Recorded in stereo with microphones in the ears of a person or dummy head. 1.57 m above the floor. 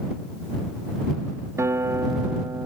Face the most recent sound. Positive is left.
turn(degrees=-15)  # may be behind; listen again after turning